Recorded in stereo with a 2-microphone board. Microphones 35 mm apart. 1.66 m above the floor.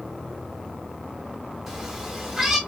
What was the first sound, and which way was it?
A cat meowing, 5° right (ahead or behind).